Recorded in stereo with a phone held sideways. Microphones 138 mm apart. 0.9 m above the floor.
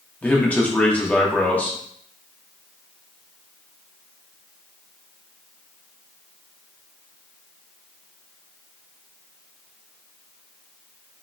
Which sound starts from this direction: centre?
A man speaking, at 0.2 s.